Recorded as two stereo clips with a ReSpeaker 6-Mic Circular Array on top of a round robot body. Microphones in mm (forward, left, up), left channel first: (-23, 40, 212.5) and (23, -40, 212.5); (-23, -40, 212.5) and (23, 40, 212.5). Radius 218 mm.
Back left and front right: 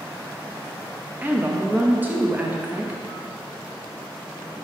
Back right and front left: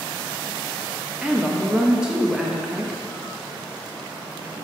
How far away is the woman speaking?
About 1.1 m.